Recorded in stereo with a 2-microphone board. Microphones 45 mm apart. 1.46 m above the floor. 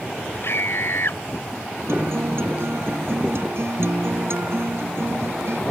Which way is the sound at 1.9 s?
65° right (ahead or behind).